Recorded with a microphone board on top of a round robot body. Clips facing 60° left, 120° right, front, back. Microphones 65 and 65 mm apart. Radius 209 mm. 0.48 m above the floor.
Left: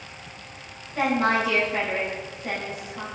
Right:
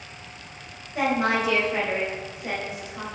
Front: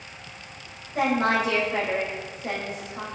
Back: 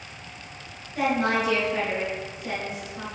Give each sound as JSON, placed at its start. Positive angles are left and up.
{"t": 0.9, "sound": "a woman speaking", "azimuth_deg": -45, "distance_m": 4.5}